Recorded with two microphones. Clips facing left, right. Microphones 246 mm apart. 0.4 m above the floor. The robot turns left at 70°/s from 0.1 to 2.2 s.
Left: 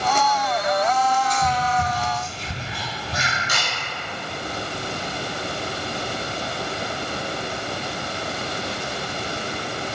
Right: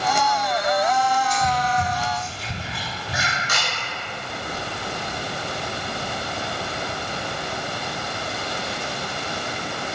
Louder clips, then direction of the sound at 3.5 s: Even; 60° right (ahead or behind).